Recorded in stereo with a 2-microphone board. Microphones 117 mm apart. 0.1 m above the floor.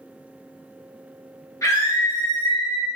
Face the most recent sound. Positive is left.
turn(degrees=40)  # may be behind; listen again after turning